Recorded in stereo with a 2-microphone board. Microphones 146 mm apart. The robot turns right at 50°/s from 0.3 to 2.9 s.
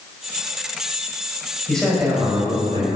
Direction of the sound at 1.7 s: 170° left.